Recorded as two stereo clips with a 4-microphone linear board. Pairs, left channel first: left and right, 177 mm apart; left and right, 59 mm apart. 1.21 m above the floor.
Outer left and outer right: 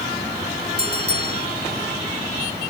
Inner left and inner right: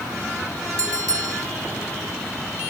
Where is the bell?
75° right (ahead or behind).